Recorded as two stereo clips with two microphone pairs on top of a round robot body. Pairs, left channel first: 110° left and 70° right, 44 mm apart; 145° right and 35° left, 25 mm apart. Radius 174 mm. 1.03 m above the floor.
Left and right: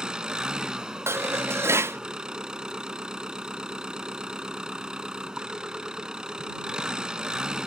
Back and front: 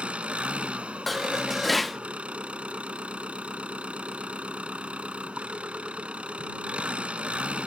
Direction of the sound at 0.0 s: Straight ahead.